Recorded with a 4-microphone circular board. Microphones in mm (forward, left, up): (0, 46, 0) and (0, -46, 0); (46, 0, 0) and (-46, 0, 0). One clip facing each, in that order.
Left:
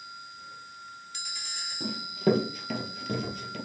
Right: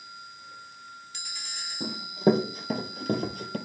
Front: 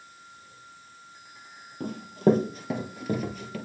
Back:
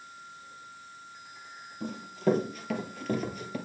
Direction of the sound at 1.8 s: 15° right.